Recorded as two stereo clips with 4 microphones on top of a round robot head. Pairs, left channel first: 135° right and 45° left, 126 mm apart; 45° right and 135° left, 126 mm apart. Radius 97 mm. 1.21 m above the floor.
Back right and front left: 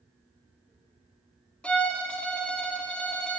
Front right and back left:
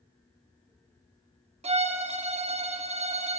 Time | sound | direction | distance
1.6 | a violin | 145° left | 0.6 m